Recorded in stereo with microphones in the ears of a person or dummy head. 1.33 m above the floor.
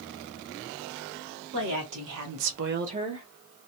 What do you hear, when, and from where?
1.5 s a woman speaking: 60° right (ahead or behind), 1.6 m; by 3.3 s 5° right (ahead or behind), 0.9 m